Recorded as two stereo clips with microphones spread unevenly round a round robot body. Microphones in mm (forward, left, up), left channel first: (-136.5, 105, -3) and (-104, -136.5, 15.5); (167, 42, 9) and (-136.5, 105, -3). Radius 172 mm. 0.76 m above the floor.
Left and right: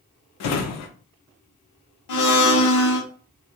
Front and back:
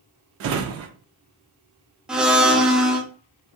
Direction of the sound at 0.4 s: 120° left.